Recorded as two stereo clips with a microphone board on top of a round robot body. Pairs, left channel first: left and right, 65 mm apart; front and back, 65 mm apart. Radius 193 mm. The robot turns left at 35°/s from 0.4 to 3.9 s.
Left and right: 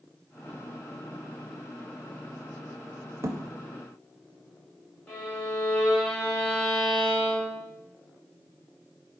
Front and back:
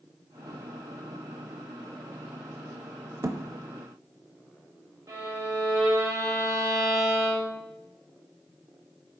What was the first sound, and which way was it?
A thud, 135° right.